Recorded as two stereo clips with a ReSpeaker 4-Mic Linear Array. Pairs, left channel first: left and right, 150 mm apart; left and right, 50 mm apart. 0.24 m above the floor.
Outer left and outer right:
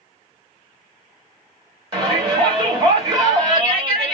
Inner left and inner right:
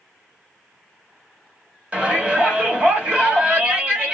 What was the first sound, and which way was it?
A shout, 30° right (ahead or behind).